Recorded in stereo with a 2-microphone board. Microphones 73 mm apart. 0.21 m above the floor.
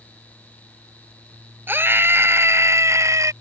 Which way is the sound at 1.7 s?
30° right (ahead or behind).